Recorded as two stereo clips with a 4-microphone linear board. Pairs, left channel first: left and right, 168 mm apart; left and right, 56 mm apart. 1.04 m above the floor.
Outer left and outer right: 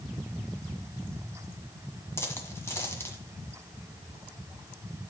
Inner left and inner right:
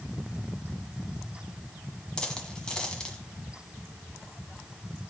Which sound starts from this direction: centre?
A dropped coin, at 2.2 s.